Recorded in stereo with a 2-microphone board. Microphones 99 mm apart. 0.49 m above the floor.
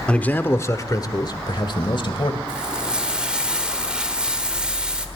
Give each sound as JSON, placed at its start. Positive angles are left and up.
{"t": 0.1, "sound": "a man speaking", "side_deg": 10, "distance_m": 1.2}
{"t": 2.5, "sound": "frying", "side_deg": -10, "distance_m": 2.0}